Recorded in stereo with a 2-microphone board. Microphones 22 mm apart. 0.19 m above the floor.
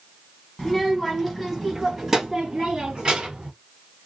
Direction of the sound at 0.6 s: 15° left (ahead or behind).